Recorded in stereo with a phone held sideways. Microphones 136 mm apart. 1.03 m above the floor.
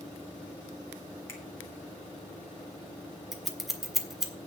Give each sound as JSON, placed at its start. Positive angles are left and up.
{"t": 1.3, "sound": "a finger snap", "side_deg": 20, "distance_m": 1.8}
{"t": 3.3, "sound": "scissors", "side_deg": 0, "distance_m": 1.4}